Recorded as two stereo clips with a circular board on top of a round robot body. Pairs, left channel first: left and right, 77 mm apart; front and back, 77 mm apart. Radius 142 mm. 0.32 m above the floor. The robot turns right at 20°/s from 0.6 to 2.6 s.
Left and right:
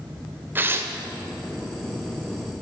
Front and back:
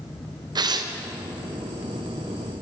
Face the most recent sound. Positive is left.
turn(degrees=-115)